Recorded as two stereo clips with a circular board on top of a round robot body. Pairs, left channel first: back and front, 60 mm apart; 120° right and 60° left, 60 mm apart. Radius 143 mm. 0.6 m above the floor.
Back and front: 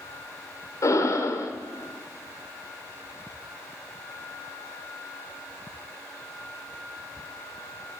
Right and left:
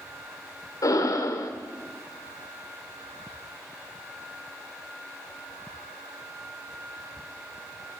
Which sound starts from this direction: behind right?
Breathing, at 0.8 s.